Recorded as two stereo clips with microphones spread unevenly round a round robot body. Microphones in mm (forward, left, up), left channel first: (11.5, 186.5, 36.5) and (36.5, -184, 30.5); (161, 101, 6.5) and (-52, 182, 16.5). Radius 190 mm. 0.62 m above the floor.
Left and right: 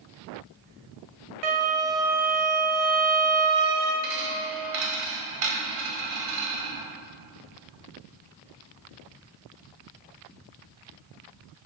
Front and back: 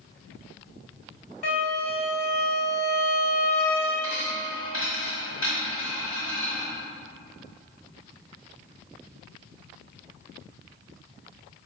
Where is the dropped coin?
100° right, 1.3 m.